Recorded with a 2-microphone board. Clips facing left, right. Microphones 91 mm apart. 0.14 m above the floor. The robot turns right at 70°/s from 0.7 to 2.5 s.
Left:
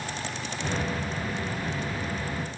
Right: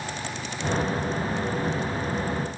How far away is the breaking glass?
No breaking glass in this recording.